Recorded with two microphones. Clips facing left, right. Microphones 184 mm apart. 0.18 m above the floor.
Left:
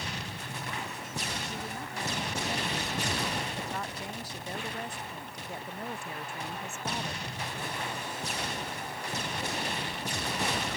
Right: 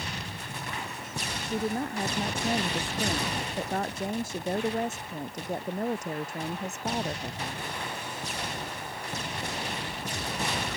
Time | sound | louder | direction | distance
1.4 | a woman speaking | right 9 dB | 55° right (ahead or behind) | ?